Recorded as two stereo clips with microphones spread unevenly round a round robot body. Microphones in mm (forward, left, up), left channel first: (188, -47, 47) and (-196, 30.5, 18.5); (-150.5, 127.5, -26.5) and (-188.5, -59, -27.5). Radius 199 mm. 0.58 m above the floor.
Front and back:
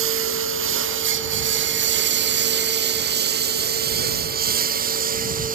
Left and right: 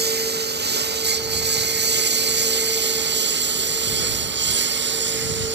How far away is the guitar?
No guitar in this recording.